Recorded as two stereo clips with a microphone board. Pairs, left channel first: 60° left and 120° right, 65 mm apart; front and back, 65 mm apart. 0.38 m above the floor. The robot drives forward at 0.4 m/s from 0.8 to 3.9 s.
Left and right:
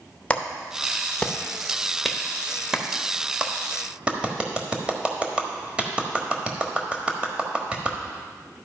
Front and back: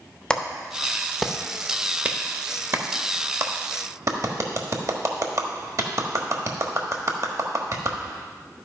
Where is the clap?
45° left, 0.7 m; by 8.0 s 170° left, 1.3 m.